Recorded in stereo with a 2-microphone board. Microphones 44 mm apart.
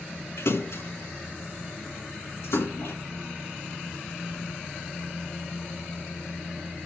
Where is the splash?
70° left (ahead or behind), 4.5 m.